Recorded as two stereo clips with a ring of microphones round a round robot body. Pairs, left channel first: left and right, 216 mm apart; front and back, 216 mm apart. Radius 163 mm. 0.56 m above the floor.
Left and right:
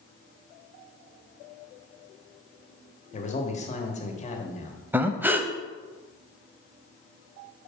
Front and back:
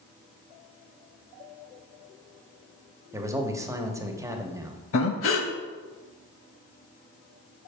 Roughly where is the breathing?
Ahead.